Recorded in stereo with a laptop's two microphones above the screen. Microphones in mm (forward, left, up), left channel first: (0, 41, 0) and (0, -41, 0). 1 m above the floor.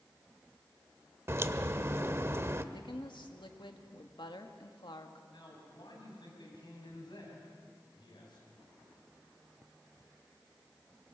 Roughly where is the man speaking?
Left.